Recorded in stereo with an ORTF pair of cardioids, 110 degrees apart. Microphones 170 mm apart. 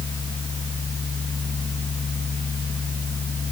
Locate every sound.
0.0 s a fan: 20° left, 1.1 m